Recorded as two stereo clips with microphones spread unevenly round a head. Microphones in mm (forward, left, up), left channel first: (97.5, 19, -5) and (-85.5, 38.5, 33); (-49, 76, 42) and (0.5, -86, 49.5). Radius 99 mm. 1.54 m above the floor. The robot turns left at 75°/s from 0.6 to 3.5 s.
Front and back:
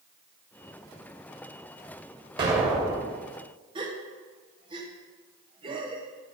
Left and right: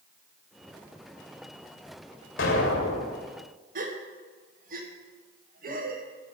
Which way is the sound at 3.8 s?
115° right.